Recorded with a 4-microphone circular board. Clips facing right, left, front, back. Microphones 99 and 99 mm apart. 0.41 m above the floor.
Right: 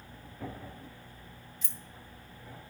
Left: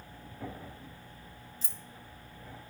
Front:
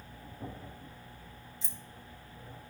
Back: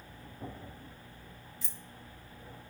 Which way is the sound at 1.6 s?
55° left.